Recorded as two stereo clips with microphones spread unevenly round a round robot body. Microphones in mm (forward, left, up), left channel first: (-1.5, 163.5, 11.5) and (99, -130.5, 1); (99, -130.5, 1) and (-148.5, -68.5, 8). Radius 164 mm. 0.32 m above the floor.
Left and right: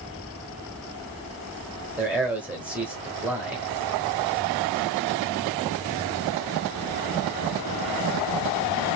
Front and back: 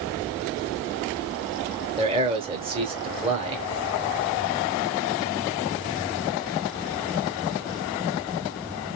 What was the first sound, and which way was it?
A man speaking, 150° right.